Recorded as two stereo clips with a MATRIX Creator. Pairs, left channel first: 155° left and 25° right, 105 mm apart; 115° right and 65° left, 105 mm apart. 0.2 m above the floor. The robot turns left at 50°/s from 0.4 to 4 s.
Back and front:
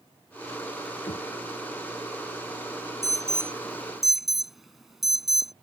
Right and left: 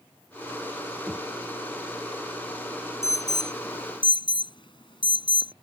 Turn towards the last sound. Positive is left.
turn(degrees=-110)